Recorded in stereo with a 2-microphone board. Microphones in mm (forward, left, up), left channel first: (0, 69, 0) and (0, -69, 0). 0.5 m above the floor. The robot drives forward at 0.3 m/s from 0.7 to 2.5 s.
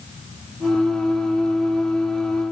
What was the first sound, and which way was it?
Only background noise.